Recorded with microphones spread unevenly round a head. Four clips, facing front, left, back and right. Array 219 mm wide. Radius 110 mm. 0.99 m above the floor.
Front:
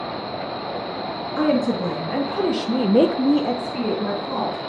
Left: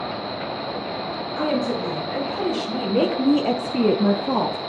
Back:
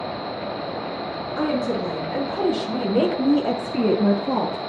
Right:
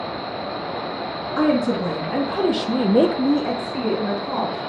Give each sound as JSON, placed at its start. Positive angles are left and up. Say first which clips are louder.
{"t": 1.4, "sound": "a woman speaking", "louder": "right 4 dB, front 3 dB", "azimuth_deg": -45, "distance_m": 2.5}